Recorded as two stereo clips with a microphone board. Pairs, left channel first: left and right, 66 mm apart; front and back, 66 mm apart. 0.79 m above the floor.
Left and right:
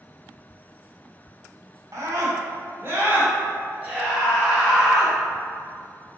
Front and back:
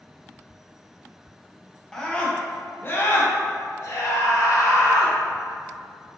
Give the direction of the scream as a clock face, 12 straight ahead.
3 o'clock.